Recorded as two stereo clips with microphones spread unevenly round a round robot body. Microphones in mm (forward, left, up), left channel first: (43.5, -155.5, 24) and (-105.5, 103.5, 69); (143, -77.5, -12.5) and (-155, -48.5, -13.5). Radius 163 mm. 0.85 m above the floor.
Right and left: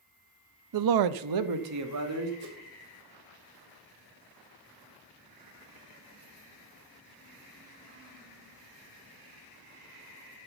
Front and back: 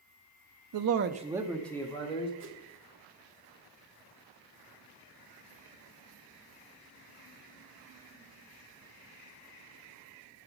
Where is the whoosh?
120° left, 2 m.